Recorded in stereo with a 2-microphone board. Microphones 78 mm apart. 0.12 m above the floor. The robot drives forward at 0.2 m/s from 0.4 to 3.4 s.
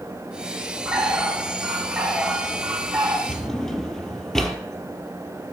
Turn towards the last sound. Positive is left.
turn(degrees=5)  # may be behind; listen again after turning